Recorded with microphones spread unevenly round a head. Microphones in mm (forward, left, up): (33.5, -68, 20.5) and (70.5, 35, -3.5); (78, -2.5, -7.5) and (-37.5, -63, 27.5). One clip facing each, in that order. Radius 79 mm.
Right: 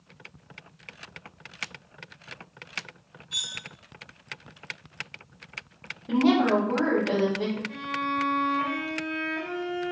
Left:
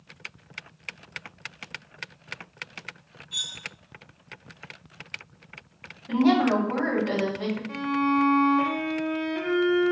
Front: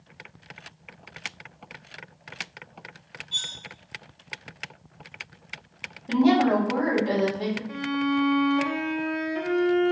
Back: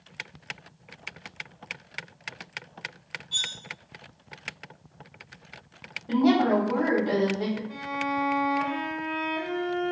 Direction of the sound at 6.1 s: 50° right.